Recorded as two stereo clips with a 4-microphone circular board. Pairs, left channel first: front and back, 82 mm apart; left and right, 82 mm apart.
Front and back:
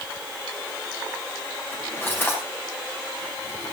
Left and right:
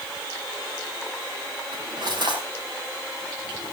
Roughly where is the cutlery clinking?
Ahead right.